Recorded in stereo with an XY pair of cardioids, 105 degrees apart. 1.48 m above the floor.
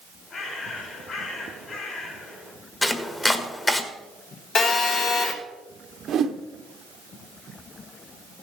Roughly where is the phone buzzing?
Ahead left.